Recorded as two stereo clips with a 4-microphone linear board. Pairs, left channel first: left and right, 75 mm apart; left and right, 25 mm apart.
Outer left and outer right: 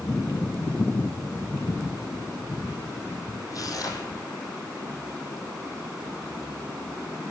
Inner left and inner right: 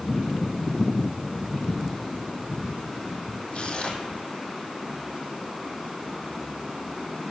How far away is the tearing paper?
About 2 m.